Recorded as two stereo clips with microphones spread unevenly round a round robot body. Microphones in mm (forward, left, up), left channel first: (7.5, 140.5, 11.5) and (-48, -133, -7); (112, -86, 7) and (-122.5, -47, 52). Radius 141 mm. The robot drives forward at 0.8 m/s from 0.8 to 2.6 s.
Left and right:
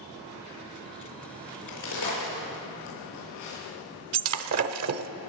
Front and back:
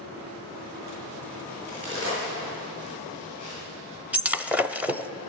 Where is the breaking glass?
100° right, 0.7 m.